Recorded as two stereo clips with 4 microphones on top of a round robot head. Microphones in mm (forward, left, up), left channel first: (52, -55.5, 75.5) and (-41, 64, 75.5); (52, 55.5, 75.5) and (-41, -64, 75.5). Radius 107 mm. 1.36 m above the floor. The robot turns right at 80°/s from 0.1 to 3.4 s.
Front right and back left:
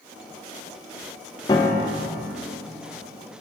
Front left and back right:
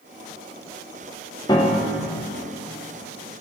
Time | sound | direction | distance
1.5 | a piano | straight ahead | 0.6 m